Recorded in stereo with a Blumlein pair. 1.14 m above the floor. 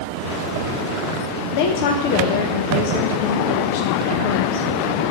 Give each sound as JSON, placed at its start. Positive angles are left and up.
{"t": 1.5, "sound": "a woman speaking", "azimuth_deg": 50, "distance_m": 0.9}